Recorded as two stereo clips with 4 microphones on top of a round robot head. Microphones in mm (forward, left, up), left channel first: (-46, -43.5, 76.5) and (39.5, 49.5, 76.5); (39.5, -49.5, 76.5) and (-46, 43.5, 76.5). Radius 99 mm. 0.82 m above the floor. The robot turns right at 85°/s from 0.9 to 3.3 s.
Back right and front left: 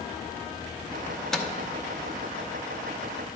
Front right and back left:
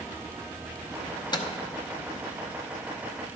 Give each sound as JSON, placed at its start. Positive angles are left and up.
{"t": 1.1, "sound": "a microwave", "azimuth_deg": -70, "distance_m": 0.8}